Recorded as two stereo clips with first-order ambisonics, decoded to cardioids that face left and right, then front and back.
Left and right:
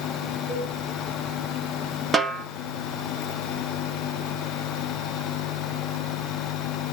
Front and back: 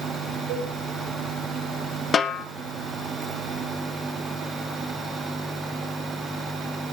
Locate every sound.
0.5 s a cowbell: 175° right, 4.5 m
2.1 s a snare drum: 35° right, 1.0 m